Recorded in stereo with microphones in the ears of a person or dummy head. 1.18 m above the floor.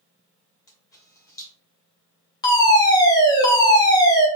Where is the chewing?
I don't hear chewing.